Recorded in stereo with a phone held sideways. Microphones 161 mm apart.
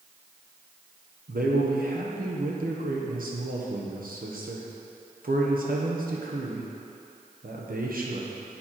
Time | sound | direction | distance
1.3 | a man speaking | 70° right (ahead or behind) | 1.2 m